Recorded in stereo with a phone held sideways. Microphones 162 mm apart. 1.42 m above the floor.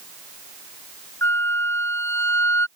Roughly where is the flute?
Centre.